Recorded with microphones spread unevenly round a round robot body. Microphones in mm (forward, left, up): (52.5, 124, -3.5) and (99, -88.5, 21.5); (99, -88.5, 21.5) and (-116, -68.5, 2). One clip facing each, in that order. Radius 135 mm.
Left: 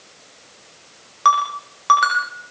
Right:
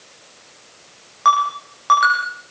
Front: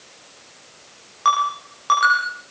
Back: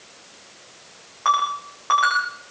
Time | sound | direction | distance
1.2 | a ringtone | 55° left | 9 m